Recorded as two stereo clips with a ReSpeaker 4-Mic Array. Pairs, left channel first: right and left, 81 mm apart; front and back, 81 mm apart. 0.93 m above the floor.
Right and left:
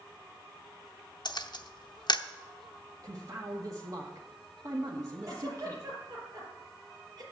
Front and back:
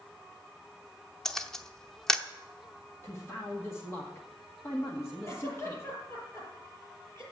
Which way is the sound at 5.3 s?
50° left.